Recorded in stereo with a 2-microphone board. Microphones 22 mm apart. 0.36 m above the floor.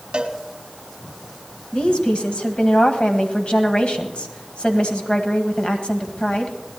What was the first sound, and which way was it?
A cowbell, 45° right (ahead or behind).